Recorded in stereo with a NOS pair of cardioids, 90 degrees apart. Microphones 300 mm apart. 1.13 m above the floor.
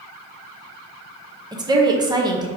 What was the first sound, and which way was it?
A woman speaking, 15° right.